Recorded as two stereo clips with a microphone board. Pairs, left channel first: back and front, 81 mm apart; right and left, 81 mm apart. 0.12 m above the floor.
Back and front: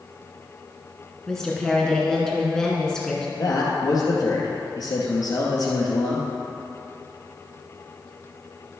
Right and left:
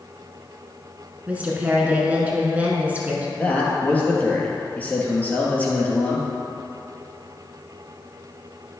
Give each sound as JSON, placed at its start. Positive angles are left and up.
{"t": 1.3, "sound": "a woman speaking", "azimuth_deg": 115, "distance_m": 1.6}
{"t": 3.4, "sound": "a man speaking", "azimuth_deg": -160, "distance_m": 2.0}